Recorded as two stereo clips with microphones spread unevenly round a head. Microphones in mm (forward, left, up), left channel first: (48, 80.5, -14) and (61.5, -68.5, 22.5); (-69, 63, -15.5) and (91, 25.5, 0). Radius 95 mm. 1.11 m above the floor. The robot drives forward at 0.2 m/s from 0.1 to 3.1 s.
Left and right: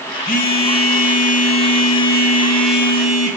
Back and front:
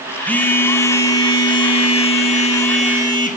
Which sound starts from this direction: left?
A phone buzzing, at 0.3 s.